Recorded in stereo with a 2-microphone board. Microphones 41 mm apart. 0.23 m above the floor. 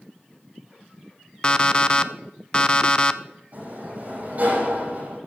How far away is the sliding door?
About 8 m.